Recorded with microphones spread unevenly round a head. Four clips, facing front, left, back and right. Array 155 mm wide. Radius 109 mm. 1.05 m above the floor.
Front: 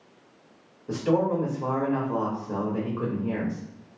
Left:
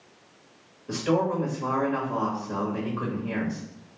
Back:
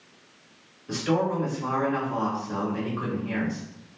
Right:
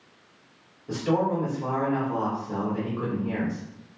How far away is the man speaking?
About 1.5 m.